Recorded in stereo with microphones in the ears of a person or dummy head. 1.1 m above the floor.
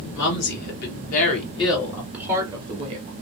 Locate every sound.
0.1 s a woman speaking: 60° left (ahead or behind), 1.5 m; by 3.1 s 40° right (ahead or behind), 1.1 m